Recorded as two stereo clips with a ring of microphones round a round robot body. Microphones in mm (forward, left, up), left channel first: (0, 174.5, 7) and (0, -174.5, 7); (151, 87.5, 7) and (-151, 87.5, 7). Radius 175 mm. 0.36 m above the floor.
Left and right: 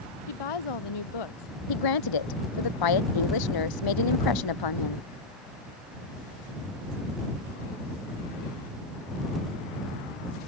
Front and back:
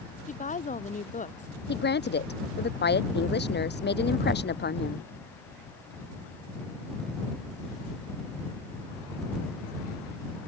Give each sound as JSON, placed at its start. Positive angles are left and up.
{"t": 0.3, "sound": "a woman speaking", "azimuth_deg": 65}
{"t": 1.7, "sound": "a woman speaking", "azimuth_deg": 60}